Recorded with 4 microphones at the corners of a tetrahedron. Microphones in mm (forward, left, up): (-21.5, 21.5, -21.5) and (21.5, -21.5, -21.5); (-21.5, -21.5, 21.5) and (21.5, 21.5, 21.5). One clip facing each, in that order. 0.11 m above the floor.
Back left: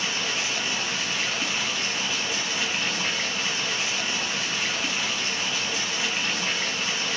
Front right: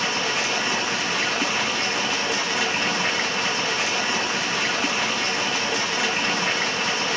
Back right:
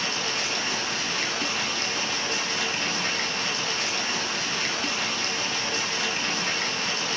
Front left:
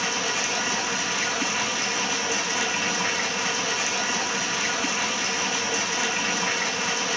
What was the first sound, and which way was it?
Running water, 40° right.